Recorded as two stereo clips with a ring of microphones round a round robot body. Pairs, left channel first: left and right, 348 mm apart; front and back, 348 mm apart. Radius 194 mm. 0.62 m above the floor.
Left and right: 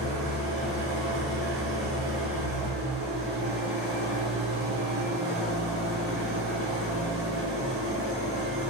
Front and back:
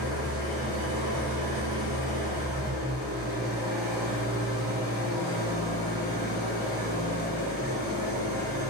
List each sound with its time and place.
0.0 s an engine running: straight behind, 1.5 m